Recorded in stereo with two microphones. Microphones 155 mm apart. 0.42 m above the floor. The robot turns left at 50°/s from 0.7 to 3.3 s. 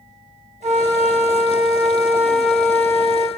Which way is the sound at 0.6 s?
90° right.